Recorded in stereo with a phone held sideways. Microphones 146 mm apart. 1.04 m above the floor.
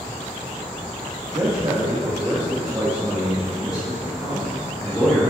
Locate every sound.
1.3 s a man speaking: 35° right (ahead or behind), 1.8 m; by 5.3 s 10° left (ahead or behind), 3 m